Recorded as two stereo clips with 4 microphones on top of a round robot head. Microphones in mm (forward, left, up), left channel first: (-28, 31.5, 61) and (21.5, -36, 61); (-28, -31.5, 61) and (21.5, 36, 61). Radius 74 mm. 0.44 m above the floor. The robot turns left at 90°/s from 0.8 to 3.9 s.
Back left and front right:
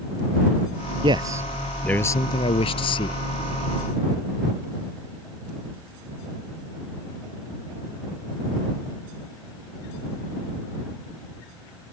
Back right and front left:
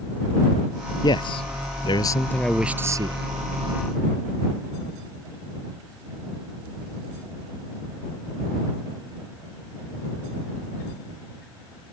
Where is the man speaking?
80° right; by 3.2 s 85° left.